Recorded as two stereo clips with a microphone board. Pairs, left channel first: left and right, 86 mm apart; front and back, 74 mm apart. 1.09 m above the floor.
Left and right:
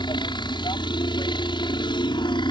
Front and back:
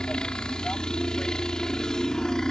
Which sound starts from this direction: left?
A helicopter, at 0.0 s.